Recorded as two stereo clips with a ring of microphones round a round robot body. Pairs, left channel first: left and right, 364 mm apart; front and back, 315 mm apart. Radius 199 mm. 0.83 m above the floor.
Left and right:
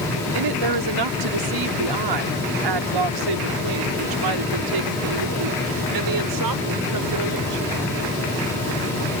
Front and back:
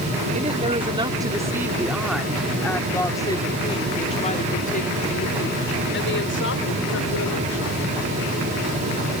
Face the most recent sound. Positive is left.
turn(degrees=-50)